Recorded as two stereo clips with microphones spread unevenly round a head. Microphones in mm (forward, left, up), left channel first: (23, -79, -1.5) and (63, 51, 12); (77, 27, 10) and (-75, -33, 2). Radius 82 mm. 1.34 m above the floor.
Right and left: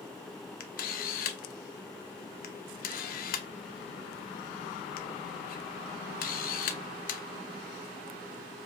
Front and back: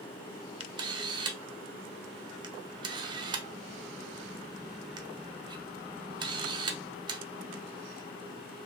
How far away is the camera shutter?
About 0.6 m.